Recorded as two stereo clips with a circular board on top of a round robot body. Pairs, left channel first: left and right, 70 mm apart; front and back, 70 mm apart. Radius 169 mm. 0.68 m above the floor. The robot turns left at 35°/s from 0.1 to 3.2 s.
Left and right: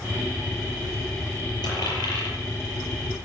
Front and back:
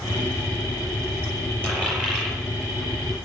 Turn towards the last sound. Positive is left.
turn(degrees=60)